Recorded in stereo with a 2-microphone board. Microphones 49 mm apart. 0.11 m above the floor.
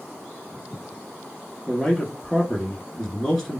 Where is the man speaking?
5° left (ahead or behind), 1.1 m.